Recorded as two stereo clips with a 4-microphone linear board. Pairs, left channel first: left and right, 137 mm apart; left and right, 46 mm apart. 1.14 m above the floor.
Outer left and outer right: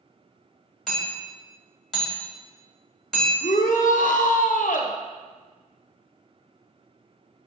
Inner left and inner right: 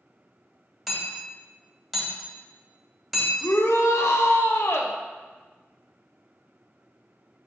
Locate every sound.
0.9 s hammering: centre (ahead or behind), 2.5 m
3.4 s a shout: 75° left (ahead or behind), 0.9 m